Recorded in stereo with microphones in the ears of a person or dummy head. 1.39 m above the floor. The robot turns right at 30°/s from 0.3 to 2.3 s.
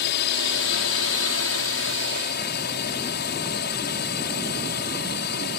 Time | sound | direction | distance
0.0 | a drone | 65° left | ?